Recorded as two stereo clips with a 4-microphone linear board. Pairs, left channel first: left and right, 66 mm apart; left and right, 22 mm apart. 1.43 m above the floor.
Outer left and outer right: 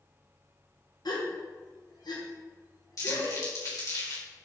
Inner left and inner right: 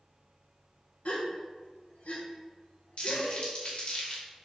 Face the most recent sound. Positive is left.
turn(degrees=60)  # may be behind; listen again after turning